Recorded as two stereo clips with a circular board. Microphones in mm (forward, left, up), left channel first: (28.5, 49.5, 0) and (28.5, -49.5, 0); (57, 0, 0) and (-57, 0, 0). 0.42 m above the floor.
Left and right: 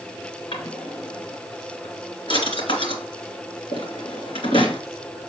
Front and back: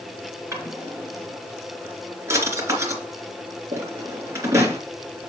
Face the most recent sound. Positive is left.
turn(degrees=115)